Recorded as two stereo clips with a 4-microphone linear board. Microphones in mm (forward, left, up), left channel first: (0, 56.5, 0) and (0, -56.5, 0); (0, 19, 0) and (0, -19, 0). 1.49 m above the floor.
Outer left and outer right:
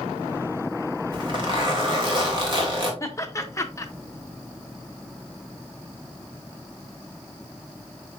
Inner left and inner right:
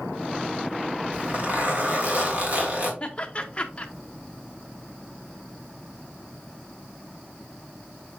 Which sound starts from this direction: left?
Laughter, at 3.0 s.